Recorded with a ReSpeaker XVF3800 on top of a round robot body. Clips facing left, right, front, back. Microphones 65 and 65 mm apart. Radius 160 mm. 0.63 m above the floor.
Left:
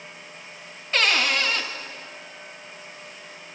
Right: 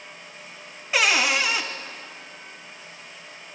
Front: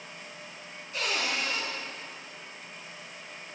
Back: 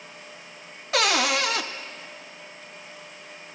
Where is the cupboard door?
170° right, 0.5 m.